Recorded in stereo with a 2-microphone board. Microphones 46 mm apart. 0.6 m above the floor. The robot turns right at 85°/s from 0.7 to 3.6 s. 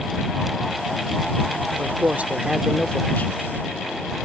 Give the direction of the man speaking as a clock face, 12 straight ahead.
2 o'clock.